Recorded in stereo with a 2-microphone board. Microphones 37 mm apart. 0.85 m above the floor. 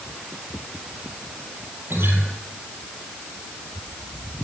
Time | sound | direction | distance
1.9 | a guitar | 80° right | 4 m